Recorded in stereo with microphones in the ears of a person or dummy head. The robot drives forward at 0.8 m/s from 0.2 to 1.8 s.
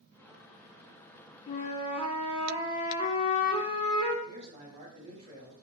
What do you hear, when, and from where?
1.5 s a flute: 40° left (ahead or behind), 0.6 m; by 4.2 s 25° left (ahead or behind), 0.8 m
4.2 s a man speaking: 35° right (ahead or behind), 1.2 m